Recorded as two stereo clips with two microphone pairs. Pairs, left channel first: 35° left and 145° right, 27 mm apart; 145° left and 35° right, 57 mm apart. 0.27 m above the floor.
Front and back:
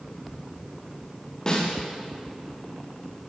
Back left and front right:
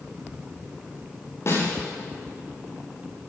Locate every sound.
1.5 s a snare drum: 105° left, 9.5 m